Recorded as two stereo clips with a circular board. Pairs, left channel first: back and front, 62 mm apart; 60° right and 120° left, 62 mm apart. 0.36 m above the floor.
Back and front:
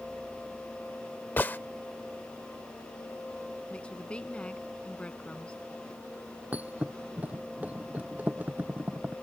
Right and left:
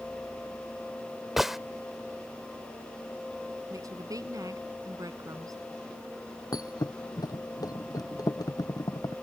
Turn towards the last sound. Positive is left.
turn(degrees=-65)